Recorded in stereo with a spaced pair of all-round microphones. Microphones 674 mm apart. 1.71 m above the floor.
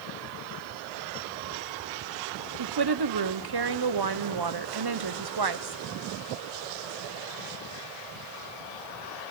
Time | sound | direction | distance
2.6 | a woman speaking | 40° right (ahead or behind) | 0.6 m